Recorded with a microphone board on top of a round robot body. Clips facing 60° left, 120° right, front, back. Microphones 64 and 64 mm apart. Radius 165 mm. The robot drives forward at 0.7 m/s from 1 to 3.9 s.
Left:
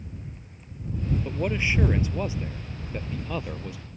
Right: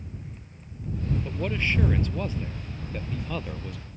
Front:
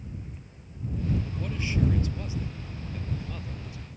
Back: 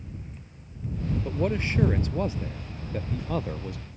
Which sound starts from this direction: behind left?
A man speaking, at 1.2 s.